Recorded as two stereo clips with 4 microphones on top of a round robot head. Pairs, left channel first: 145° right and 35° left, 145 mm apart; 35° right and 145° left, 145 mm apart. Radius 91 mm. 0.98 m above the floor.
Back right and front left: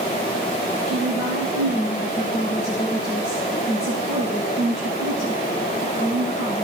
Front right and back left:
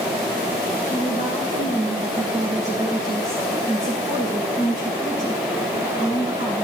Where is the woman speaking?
160° right, 9 m.